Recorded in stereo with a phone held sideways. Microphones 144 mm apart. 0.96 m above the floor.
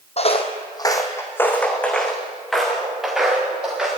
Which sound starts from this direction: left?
Footsteps, at 0.2 s.